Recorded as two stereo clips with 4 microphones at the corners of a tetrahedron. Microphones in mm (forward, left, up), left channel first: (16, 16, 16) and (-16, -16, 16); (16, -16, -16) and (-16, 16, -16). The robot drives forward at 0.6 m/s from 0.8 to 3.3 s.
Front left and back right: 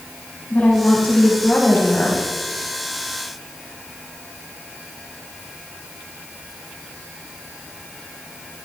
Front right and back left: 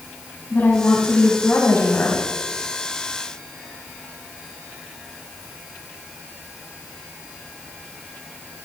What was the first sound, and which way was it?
A woman speaking, 5° right.